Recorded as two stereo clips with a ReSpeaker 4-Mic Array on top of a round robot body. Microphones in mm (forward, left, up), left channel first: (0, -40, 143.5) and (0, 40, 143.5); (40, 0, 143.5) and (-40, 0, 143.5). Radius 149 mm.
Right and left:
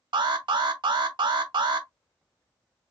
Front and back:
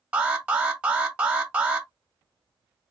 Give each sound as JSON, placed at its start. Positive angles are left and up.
{"t": 0.1, "sound": "an alarm", "azimuth_deg": 105, "distance_m": 1.0}